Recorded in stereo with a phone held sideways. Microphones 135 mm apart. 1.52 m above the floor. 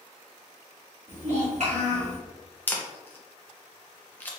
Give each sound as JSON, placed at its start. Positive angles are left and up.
{"t": 1.1, "sound": "a child speaking", "side_deg": -60, "distance_m": 1.8}
{"t": 2.7, "sound": "a camera shutter", "side_deg": 15, "distance_m": 0.6}